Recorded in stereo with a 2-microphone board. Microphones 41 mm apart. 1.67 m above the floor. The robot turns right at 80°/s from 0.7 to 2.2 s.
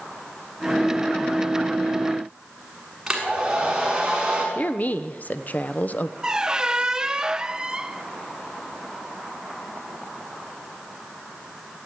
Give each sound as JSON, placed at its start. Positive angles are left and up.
{"t": 3.1, "sound": "a hair dryer", "side_deg": -10, "distance_m": 6.5}
{"t": 4.5, "sound": "a woman speaking", "side_deg": 45, "distance_m": 0.9}
{"t": 6.2, "sound": "a squeak", "side_deg": -15, "distance_m": 0.6}